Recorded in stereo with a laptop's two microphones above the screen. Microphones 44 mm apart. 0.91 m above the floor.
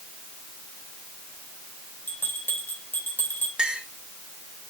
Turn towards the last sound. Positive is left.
turn(degrees=-15)  # may be behind; listen again after turning